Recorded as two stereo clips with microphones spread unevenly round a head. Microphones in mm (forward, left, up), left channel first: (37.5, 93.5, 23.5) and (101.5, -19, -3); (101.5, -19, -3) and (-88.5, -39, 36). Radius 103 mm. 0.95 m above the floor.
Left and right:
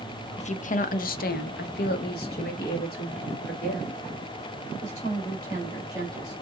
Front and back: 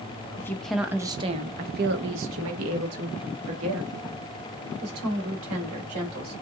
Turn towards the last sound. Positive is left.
turn(degrees=-175)